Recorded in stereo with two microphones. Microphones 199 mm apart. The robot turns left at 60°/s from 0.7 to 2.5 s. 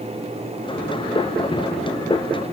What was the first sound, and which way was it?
Only background noise.